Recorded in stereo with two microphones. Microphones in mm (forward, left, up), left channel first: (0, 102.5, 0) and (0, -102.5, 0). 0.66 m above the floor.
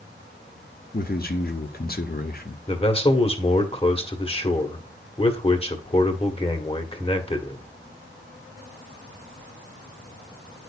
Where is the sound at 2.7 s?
25° left (ahead or behind), 1.5 m.